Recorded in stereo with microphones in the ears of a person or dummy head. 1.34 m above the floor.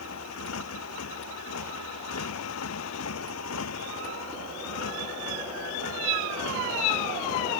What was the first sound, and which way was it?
A motorcycle, 85° left.